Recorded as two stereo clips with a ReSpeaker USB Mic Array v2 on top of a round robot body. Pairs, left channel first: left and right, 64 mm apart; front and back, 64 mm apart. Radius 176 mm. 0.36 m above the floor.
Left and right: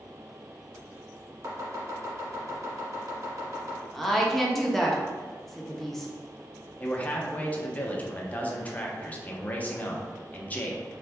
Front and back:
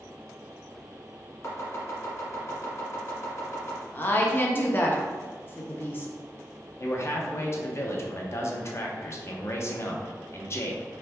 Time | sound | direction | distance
1.4 | chopping | 50° right | 1.3 m
3.9 | a woman speaking | 5° left | 1.3 m
6.8 | a man speaking | 30° left | 1.2 m